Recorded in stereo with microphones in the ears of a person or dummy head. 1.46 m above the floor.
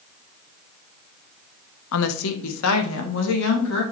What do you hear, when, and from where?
1.9 s a woman speaking: 70° left (ahead or behind), 0.7 m; by 3.8 s 80° left, 2.5 m